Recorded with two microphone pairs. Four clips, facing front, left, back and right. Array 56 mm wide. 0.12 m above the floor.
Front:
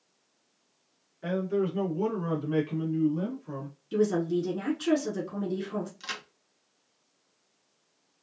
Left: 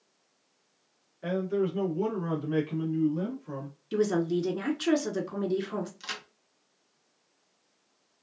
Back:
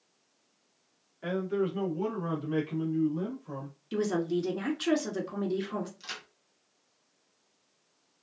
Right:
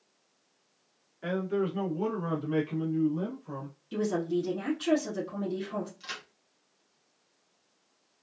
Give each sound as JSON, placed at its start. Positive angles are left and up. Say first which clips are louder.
{"t": 1.2, "sound": "a man speaking", "louder": "left 1 dB, front 2 dB", "azimuth_deg": -105, "distance_m": 1.5}
{"t": 3.9, "sound": "a woman speaking", "louder": "left 3 dB, front 3 dB", "azimuth_deg": 120, "distance_m": 1.2}
{"t": 6.0, "sound": "a crack", "louder": "left 2 dB, front 4 dB", "azimuth_deg": 30, "distance_m": 1.0}